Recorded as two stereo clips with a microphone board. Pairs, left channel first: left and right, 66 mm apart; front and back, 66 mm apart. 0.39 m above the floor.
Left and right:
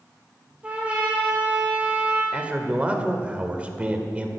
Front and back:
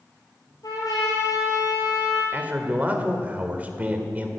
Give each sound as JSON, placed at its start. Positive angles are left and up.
{"t": 0.6, "sound": "a trumpet", "azimuth_deg": -20, "distance_m": 4.5}
{"t": 2.3, "sound": "a man speaking", "azimuth_deg": -140, "distance_m": 1.4}